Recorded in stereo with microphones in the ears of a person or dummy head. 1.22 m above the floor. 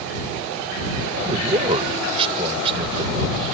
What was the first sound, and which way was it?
A man speaking, 20° right (ahead or behind).